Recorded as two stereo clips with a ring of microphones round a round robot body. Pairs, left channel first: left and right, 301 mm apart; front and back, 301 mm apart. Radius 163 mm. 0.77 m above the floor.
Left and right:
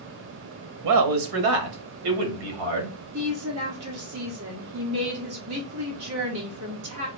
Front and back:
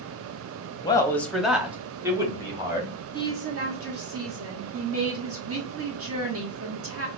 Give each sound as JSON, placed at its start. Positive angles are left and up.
{"t": 0.8, "sound": "a man speaking", "azimuth_deg": -75, "distance_m": 0.8}
{"t": 3.1, "sound": "a woman speaking", "azimuth_deg": -135, "distance_m": 1.4}